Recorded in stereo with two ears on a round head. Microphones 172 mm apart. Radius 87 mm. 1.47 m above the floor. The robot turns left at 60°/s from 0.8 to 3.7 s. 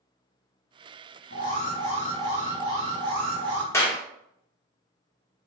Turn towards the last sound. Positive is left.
turn(degrees=15)  # may be behind; listen again after turning